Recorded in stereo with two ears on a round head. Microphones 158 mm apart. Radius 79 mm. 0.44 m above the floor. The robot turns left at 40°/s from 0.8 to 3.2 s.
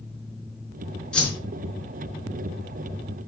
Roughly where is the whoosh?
Centre.